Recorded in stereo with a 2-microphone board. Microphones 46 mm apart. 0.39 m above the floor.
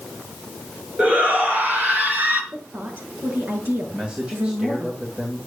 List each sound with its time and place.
1.0 s a shout: 35° right (ahead or behind), 5.5 m; by 2.4 s 45° right (ahead or behind), 5 m
2.5 s a woman speaking: 50° right (ahead or behind), 5.5 m
3.9 s a man speaking: 20° right (ahead or behind), 2.5 m